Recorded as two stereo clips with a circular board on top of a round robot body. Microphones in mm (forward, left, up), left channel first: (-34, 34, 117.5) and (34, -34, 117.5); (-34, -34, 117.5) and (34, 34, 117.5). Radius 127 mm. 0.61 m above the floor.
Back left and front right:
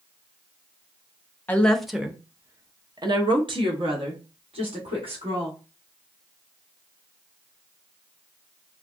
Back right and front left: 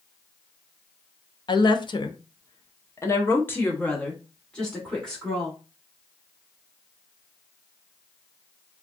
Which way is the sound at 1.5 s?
155° right.